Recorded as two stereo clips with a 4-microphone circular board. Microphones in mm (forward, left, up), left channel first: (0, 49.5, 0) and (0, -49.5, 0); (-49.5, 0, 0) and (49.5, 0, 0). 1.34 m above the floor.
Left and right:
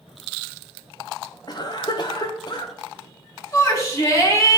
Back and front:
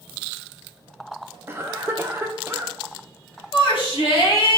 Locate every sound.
1.5 s a cough: 60° left, 0.7 m
3.5 s a shout: 150° left, 2.0 m